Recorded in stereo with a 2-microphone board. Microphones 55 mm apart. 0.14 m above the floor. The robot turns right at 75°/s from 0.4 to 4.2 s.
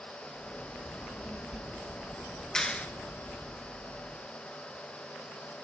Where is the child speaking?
150° left, 2.5 m; by 3.5 s 5° right, 2.5 m.